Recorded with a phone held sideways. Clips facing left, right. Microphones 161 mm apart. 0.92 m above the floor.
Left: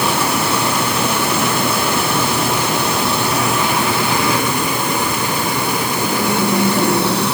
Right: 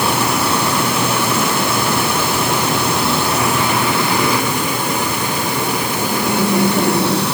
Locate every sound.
Only background noise.